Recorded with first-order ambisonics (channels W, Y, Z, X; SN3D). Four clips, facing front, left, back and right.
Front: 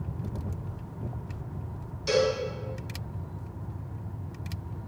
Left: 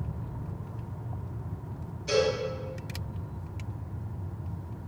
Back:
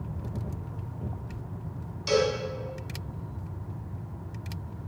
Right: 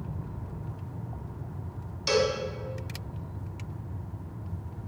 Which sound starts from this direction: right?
A cowbell, at 2.1 s.